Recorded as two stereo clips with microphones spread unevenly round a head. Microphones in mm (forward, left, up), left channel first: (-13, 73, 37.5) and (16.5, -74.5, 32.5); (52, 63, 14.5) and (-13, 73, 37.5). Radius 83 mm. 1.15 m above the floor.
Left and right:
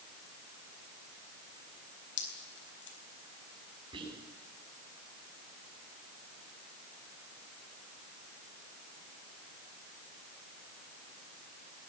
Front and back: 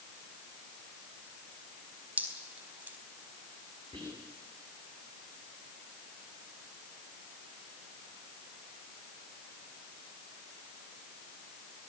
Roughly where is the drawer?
No drawer in this recording.